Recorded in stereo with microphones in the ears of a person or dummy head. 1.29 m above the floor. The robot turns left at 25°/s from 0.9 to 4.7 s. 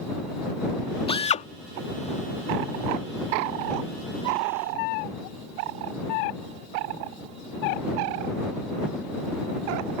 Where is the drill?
30° left (ahead or behind); by 1.5 s 35° left (ahead or behind).